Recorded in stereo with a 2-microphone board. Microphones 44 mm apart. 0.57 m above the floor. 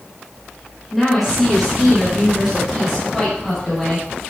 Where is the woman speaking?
Centre (ahead or behind), 4.5 m; by 4.1 s 10° right (ahead or behind), 6.5 m.